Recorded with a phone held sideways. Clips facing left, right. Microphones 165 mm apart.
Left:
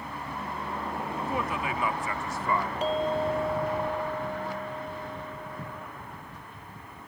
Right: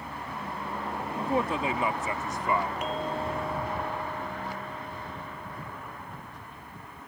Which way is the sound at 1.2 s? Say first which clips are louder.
Right 5 dB; 35° right (ahead or behind).